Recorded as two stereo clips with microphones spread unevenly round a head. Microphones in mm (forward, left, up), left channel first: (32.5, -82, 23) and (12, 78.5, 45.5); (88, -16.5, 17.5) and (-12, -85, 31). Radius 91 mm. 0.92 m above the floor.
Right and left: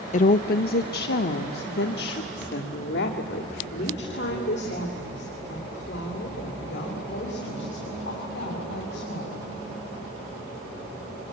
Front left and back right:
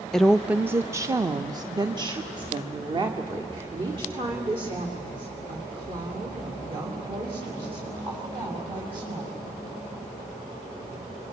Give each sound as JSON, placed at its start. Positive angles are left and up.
{"t": 0.1, "sound": "a woman speaking", "azimuth_deg": -50, "distance_m": 0.5}